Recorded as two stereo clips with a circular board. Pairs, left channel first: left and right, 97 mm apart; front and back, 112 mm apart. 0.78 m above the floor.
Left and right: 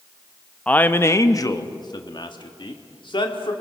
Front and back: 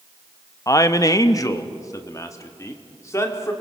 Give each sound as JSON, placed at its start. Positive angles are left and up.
{"t": 0.7, "sound": "a man speaking", "azimuth_deg": 25, "distance_m": 0.7}